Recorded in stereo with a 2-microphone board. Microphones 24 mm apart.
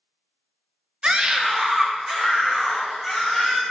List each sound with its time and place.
1.0 s a scream: 40° right (ahead or behind), 0.5 m; by 3.6 s 10° right (ahead or behind), 2 m